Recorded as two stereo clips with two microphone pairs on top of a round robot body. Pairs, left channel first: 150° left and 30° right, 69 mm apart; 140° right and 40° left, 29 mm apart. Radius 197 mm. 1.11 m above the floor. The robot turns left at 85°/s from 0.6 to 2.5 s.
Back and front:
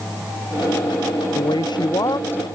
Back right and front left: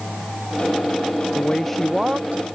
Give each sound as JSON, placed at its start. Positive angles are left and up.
{"t": 1.4, "sound": "a woman speaking", "azimuth_deg": 170}